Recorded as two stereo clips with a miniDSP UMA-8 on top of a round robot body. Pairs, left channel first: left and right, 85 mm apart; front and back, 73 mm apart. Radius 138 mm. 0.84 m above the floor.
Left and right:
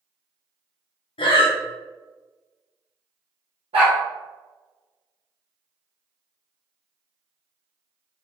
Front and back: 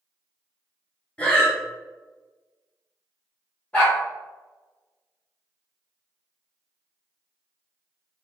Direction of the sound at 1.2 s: 75° left.